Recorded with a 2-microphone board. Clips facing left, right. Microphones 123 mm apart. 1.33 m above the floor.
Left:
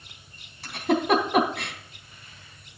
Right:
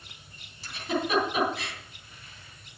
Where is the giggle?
60° left (ahead or behind), 3 m.